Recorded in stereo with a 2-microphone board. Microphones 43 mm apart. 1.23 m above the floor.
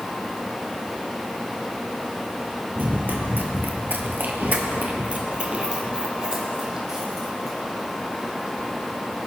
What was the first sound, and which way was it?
Running footsteps, 40° right (ahead or behind).